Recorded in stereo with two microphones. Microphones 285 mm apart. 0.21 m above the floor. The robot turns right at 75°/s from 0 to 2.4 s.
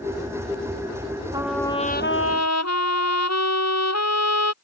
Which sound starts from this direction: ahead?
A trumpet, at 1.3 s.